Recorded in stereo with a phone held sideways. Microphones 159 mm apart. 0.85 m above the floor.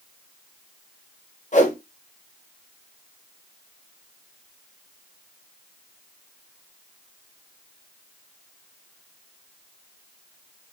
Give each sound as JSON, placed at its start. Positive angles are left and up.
{"t": 1.5, "sound": "a whoosh", "side_deg": 50, "distance_m": 0.9}